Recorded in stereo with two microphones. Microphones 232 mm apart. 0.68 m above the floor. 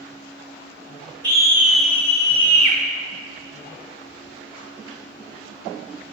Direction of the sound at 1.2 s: 20° right (ahead or behind).